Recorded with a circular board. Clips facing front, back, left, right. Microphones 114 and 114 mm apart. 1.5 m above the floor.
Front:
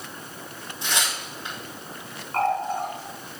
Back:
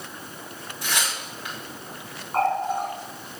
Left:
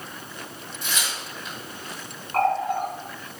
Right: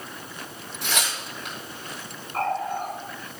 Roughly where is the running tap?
Left.